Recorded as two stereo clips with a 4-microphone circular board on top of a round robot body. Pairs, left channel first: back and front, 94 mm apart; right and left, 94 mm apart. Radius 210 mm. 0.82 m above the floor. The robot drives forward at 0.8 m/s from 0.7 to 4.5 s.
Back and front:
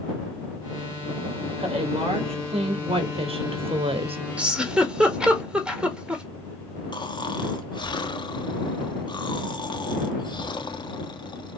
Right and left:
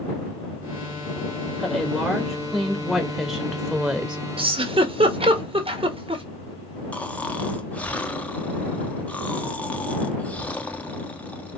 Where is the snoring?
160° right, 1.5 m.